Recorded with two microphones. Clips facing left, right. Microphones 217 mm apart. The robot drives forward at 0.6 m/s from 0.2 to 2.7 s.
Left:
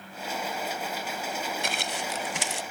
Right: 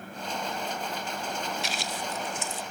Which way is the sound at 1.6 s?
55° left (ahead or behind).